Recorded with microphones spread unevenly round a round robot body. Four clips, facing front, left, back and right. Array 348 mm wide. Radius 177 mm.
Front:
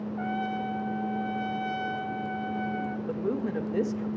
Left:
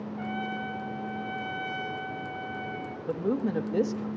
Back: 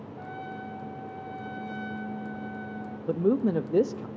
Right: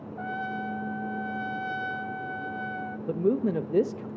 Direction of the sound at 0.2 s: 25° right.